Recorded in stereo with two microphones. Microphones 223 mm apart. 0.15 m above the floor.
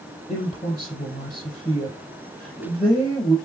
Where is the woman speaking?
25° left (ahead or behind), 4.5 m.